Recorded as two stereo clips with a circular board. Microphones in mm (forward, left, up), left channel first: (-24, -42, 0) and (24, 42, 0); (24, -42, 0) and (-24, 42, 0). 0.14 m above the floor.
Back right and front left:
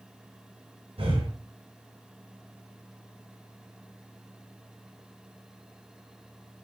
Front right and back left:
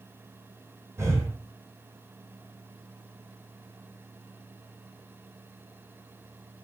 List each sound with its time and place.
1.0 s breathing: 60° left, 5.5 m